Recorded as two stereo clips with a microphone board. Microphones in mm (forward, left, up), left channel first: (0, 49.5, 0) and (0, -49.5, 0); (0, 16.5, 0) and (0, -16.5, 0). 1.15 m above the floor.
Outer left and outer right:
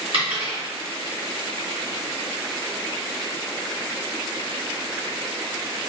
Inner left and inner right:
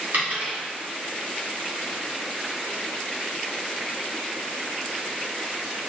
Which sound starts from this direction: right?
A dropped coin, at 0.1 s.